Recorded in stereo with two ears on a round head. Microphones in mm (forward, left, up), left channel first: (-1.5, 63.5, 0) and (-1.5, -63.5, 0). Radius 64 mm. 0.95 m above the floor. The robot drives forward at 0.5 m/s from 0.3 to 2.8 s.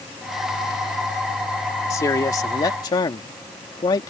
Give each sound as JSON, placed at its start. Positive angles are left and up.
{"t": 1.9, "sound": "a man speaking", "side_deg": 25}